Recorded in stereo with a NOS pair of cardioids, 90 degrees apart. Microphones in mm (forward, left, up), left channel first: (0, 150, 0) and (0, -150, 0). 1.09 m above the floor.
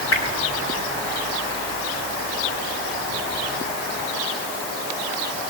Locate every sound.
0.1 s a whoosh: 50° left, 5 m